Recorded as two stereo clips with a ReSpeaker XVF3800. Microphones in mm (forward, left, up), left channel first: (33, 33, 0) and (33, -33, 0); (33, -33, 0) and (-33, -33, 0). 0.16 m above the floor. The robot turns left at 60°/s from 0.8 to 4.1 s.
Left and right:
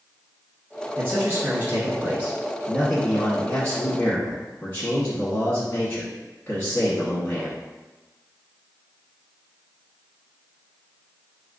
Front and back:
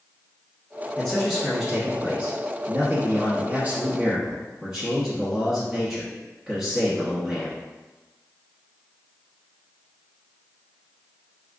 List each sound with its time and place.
1.0 s a man speaking: 60° right, 1.1 m; by 7.6 s 110° left, 1.1 m